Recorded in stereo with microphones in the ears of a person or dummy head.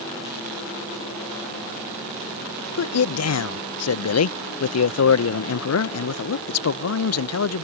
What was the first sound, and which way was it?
A man speaking, 75° left (ahead or behind).